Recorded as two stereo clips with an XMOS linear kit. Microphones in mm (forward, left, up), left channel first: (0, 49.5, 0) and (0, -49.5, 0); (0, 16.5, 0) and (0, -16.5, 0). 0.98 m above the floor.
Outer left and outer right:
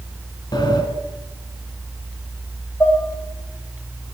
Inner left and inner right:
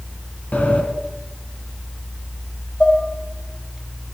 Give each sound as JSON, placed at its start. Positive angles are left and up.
{"t": 0.5, "sound": "a sliding door", "side_deg": 45, "distance_m": 1.8}
{"t": 2.8, "sound": "dishes clattering", "side_deg": 25, "distance_m": 3.0}